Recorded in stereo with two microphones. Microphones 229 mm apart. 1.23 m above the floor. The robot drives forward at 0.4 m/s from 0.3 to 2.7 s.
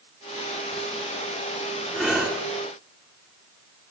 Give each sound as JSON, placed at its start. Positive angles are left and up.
{"t": 1.9, "sound": "breathing", "side_deg": -5, "distance_m": 5.5}